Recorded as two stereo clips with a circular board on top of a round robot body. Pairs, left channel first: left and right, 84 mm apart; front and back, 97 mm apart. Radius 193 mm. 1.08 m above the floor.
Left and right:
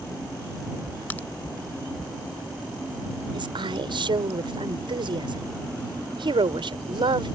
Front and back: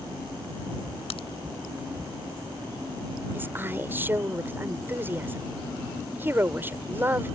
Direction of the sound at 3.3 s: 110° right.